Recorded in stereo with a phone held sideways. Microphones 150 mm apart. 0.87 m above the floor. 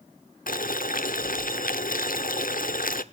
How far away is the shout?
No shout in this recording.